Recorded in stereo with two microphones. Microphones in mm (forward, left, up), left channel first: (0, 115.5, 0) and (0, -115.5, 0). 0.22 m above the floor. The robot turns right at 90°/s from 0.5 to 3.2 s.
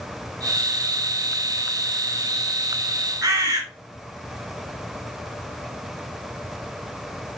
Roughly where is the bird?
Centre.